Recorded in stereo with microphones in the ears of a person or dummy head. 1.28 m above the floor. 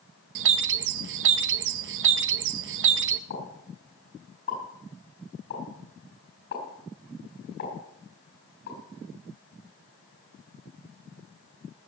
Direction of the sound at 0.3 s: 60° right (ahead or behind).